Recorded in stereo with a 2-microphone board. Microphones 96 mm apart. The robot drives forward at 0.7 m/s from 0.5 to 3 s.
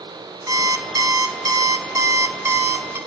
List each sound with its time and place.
0.5 s an alarm clock: 40° right (ahead or behind), 1.4 m; by 3.0 s 25° right (ahead or behind), 1.9 m